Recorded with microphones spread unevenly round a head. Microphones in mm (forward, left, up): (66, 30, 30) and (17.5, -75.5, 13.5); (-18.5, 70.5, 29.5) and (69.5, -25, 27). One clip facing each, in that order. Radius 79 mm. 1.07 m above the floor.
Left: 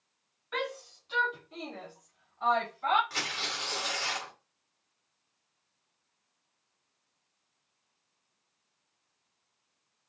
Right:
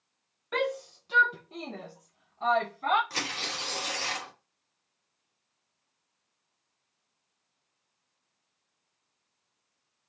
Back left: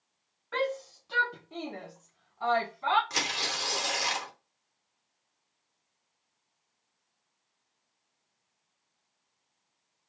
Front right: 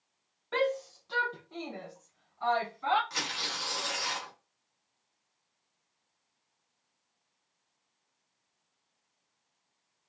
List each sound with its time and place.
0.5 s a shout: 105° right, 0.6 m; by 3.0 s 175° right, 1.7 m
3.1 s tearing paper: straight behind, 1.0 m